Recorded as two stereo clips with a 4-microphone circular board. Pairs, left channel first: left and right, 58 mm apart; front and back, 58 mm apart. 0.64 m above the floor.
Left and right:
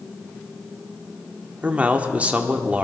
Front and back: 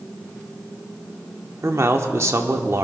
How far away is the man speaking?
About 1.3 m.